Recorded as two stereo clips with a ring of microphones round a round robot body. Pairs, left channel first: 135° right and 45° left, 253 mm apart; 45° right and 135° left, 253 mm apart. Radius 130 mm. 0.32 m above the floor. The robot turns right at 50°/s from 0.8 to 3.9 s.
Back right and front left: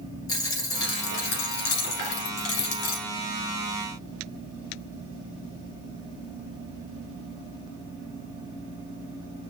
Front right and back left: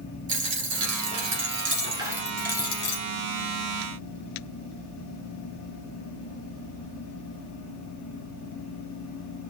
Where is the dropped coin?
150° left, 1.7 m; by 3.0 s 100° right, 1.7 m.